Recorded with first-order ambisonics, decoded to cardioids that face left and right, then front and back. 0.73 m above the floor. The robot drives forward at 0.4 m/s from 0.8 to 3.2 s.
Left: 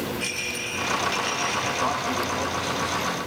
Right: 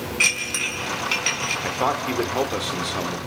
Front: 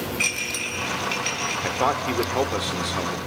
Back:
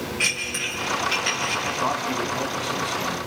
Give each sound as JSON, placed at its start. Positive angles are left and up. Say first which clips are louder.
{"t": 0.2, "sound": "dishes clattering", "louder": "right 12 dB, back 1 dB", "azimuth_deg": -85, "distance_m": 5.0}
{"t": 1.6, "sound": "a man speaking", "louder": "right 2 dB, front 1 dB", "azimuth_deg": -40, "distance_m": 2.0}